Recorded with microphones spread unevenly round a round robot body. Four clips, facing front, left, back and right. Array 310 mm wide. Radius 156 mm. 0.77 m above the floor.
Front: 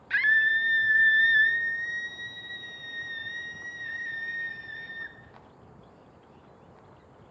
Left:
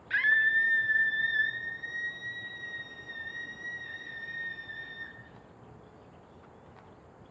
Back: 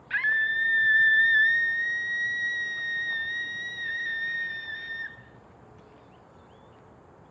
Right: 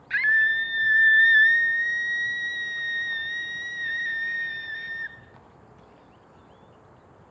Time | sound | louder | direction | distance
0.1 | a scream | right 4 dB, front 2 dB | 10° right | 1.0 m